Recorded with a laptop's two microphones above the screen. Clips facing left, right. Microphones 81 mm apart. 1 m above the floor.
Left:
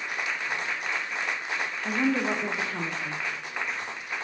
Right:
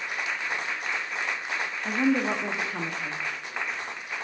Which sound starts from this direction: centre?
A woman speaking, at 1.9 s.